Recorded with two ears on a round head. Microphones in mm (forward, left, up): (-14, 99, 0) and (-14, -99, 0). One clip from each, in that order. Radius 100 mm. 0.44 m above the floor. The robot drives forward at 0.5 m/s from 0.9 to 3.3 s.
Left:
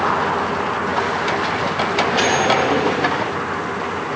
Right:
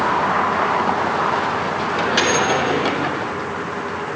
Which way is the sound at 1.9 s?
60° right (ahead or behind).